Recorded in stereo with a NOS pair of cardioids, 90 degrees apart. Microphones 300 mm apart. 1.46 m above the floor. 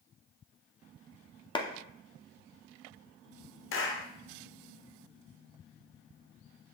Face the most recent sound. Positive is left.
turn(degrees=45)